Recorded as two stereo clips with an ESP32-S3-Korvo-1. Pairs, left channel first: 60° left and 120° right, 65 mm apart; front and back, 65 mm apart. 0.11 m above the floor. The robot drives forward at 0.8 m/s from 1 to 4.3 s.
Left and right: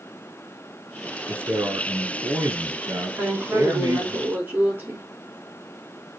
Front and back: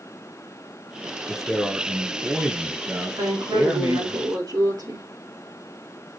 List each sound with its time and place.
1.3 s a man speaking: 85° right, 2 m; by 4.2 s 145° right, 3 m
3.2 s a woman speaking: straight behind, 6.5 m